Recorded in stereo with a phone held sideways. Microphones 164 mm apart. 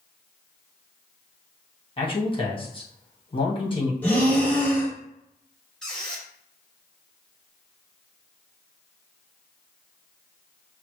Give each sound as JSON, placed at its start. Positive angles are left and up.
{"t": 2.0, "sound": "a man speaking", "side_deg": 35, "distance_m": 1.2}
{"t": 4.0, "sound": "breathing", "side_deg": 10, "distance_m": 1.1}
{"t": 5.8, "sound": "a squeak", "side_deg": 5, "distance_m": 1.5}